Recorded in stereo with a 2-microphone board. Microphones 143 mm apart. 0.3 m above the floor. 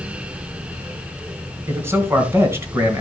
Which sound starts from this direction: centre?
A man speaking, at 1.7 s.